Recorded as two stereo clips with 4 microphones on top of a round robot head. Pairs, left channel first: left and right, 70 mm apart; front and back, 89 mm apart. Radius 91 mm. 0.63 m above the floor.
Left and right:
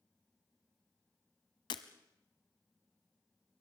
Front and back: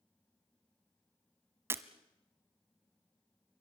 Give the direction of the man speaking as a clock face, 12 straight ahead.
I don't hear a man speaking.